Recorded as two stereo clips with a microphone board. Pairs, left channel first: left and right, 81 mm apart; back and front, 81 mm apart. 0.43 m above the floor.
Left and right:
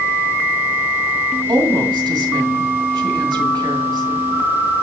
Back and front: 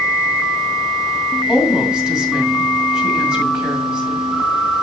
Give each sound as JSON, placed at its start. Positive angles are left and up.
{"t": 1.5, "sound": "a woman speaking", "azimuth_deg": -80, "distance_m": 2.0}